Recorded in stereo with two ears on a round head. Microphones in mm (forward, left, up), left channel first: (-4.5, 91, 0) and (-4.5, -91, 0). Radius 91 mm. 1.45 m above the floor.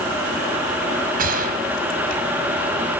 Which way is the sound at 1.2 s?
45° right (ahead or behind).